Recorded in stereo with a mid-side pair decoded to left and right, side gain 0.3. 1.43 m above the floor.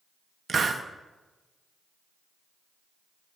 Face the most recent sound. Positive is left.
turn(degrees=-60)